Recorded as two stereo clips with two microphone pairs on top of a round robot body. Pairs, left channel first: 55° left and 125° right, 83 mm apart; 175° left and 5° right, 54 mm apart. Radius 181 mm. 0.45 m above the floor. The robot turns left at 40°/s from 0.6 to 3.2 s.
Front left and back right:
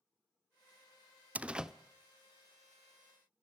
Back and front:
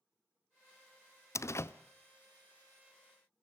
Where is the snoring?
I don't hear snoring.